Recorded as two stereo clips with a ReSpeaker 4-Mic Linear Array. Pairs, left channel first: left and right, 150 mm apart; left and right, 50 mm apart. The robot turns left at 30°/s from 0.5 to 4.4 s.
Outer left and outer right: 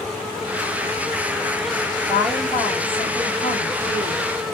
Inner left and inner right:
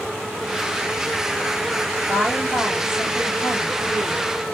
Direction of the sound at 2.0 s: 165° left.